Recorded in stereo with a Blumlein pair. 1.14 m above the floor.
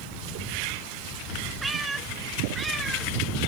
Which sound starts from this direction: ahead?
A cat meowing, at 1.6 s.